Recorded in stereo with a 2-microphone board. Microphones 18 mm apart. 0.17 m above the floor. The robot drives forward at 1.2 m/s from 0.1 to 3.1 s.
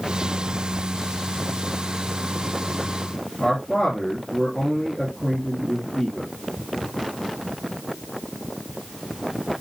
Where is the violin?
No violin in this recording.